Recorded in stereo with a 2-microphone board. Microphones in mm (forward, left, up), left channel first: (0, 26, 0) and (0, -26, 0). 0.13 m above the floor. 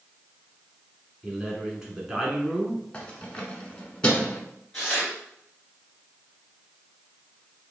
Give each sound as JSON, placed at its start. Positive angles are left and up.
{"t": 1.2, "sound": "a man speaking", "side_deg": -10, "distance_m": 1.1}
{"t": 2.9, "sound": "keys jangling", "side_deg": 20, "distance_m": 0.8}
{"t": 4.7, "sound": "tearing paper", "side_deg": 10, "distance_m": 2.0}